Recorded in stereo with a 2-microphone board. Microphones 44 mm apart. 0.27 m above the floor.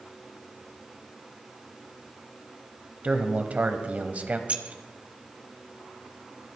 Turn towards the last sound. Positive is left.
turn(degrees=-35)  # may be behind; listen again after turning